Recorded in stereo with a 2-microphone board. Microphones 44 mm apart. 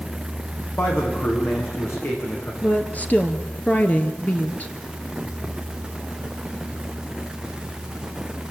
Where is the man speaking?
65° left (ahead or behind), 8.5 m.